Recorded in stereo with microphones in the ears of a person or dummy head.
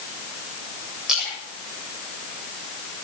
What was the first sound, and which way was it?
A splash, 5° right (ahead or behind).